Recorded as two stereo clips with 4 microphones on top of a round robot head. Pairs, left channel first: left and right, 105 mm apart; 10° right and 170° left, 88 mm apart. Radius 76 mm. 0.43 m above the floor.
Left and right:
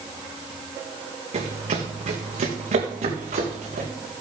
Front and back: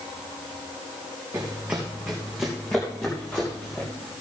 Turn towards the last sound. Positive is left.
turn(degrees=-90)